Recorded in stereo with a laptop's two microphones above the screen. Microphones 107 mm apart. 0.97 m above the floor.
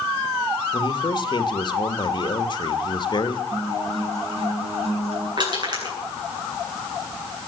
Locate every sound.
0.7 s a man speaking: 45° left (ahead or behind), 1.6 m
3.5 s a guitar: 75° right (ahead or behind), 8.5 m
5.4 s crushing: 45° right (ahead or behind), 8.5 m